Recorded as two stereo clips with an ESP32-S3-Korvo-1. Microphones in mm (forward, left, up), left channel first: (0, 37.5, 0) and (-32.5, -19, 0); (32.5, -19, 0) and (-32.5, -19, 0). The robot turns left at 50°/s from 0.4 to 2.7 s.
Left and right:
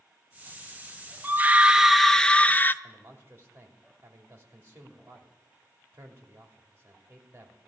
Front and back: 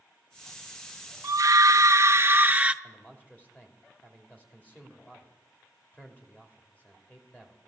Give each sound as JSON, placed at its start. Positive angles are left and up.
{"t": 1.2, "sound": "a scream", "azimuth_deg": -175, "distance_m": 0.6}
{"t": 2.8, "sound": "a man speaking", "azimuth_deg": -65, "distance_m": 2.5}